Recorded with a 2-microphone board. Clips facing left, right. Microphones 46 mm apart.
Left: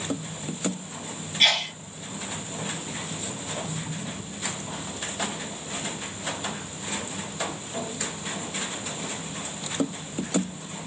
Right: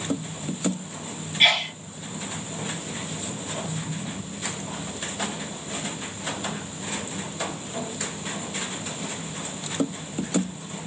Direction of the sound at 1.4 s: 15° right (ahead or behind).